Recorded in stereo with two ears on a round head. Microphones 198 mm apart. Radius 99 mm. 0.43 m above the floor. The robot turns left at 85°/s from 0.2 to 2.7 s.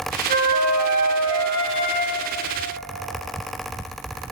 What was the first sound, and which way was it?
A flute, 35° right.